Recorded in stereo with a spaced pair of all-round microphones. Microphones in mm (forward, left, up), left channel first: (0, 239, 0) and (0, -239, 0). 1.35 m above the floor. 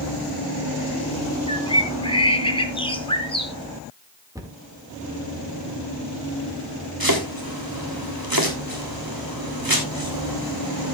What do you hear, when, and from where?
1.5 s a bird: 10° left (ahead or behind), 1.4 m
4.3 s a cupboard door: 5° right (ahead or behind), 2 m
7.0 s chopping: 45° right (ahead or behind), 3 m